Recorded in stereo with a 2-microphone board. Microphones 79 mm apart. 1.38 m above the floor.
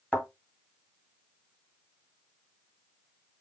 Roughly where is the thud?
Centre.